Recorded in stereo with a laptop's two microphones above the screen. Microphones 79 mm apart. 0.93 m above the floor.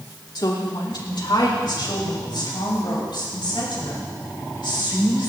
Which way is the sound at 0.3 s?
60° left (ahead or behind).